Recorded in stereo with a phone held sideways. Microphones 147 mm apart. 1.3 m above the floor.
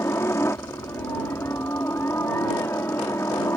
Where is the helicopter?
20° left (ahead or behind).